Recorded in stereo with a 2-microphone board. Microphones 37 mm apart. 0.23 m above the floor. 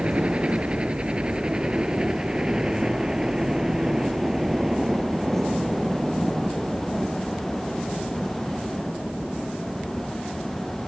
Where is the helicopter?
30° right (ahead or behind); by 10.9 s 10° left (ahead or behind).